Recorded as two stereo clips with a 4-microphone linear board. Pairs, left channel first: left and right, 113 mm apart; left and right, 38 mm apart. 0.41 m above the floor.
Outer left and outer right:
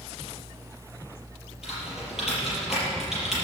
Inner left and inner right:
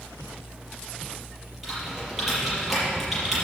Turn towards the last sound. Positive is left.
turn(degrees=-5)  # may be behind; listen again after turning